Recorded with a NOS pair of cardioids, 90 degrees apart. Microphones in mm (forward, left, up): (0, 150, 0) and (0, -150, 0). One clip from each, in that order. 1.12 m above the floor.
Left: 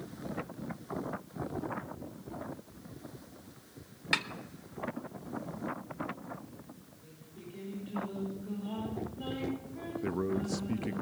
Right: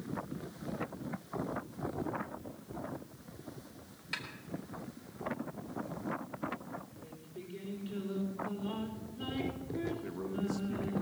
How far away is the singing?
About 5 m.